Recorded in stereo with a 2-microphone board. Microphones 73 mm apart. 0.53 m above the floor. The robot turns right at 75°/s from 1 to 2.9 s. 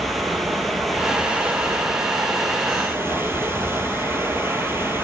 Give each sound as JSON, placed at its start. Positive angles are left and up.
{"t": 0.0, "sound": "running water", "azimuth_deg": 180, "distance_m": 0.9}